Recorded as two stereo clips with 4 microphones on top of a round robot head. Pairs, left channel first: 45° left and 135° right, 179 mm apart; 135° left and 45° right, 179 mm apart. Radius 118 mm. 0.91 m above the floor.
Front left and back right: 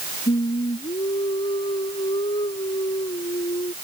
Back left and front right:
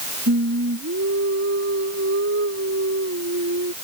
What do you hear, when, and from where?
0.3 s singing: 20° right